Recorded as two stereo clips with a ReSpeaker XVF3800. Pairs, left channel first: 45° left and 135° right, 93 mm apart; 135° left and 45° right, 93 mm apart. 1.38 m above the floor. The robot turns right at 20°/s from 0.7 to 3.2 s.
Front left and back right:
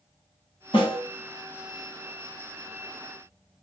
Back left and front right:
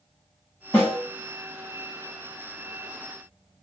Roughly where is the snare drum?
Left.